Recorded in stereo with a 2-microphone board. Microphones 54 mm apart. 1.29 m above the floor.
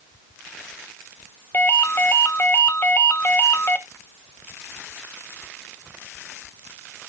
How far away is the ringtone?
About 1.4 m.